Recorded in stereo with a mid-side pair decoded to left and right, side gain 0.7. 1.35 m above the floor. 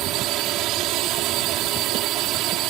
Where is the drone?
60° right.